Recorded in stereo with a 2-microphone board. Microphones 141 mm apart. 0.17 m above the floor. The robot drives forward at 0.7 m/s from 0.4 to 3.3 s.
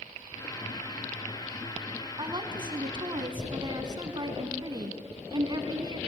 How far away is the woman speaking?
About 1.9 m.